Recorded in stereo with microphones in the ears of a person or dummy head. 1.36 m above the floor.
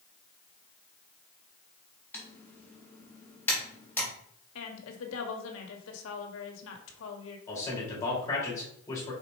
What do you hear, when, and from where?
2.1 s typing on a keyboard: 10° left (ahead or behind), 2 m
4.5 s a woman speaking: 75° left (ahead or behind), 1.5 m
7.5 s a man speaking: 15° left (ahead or behind), 3.5 m